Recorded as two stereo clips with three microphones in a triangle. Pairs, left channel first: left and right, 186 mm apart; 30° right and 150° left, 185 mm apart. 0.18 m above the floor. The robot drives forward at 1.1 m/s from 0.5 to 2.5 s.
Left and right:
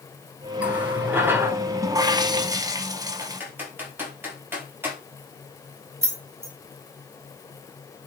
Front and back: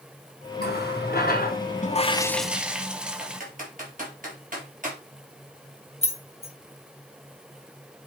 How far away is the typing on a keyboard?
About 3.5 m.